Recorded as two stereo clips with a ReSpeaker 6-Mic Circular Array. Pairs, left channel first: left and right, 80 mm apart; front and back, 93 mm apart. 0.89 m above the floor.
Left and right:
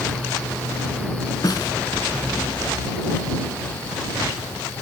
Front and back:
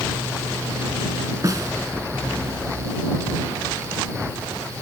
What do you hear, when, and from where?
1.4 s a snare drum: 130° left